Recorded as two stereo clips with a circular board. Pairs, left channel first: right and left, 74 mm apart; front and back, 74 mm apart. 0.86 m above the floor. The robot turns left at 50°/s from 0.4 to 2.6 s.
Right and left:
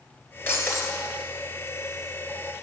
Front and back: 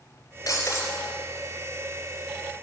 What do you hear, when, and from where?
0.5 s breaking glass: 35° right, 1.5 m; by 0.9 s 55° right, 1.5 m